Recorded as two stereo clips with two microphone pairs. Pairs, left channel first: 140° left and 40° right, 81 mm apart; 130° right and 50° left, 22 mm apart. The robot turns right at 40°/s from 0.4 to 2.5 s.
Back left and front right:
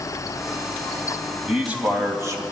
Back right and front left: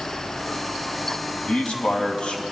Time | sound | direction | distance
1.5 | a man speaking | 125° right | 2.5 m